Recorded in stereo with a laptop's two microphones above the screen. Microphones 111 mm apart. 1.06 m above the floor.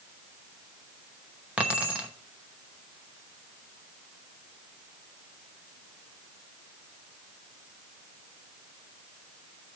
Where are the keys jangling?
10° right (ahead or behind), 0.9 m.